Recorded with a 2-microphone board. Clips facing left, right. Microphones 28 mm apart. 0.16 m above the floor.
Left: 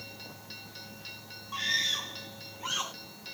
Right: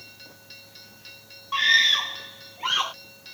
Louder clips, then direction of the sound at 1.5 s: Right 11 dB; 45° right (ahead or behind).